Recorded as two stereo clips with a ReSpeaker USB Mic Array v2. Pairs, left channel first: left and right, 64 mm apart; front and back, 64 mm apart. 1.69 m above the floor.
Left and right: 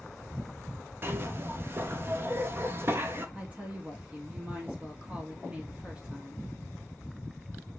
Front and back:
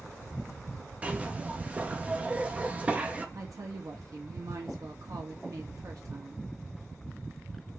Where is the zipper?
120° right, 0.8 m.